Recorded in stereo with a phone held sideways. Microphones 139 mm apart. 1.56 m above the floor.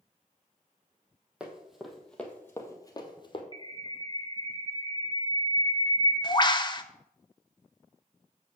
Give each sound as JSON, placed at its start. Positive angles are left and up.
{"t": 1.4, "sound": "running footsteps", "side_deg": -10, "distance_m": 2.0}
{"t": 3.5, "sound": "a bird", "side_deg": 30, "distance_m": 0.8}